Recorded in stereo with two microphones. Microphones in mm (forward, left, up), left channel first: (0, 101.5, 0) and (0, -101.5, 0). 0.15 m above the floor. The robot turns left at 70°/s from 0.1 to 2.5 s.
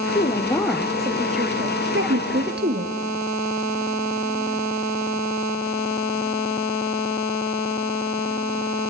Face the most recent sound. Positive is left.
turn(degrees=-120)